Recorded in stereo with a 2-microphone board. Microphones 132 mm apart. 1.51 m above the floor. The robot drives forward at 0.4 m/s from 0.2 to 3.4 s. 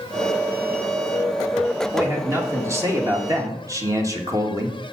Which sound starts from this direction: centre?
A man speaking, at 1.9 s.